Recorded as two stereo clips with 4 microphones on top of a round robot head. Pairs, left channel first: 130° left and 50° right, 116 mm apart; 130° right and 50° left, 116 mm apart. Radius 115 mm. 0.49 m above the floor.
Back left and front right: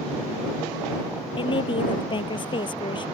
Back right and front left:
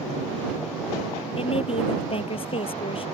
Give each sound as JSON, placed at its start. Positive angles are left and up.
{"t": 1.4, "sound": "a woman speaking", "azimuth_deg": -175}